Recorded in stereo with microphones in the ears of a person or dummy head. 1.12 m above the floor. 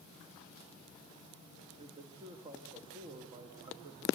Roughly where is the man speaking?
Right.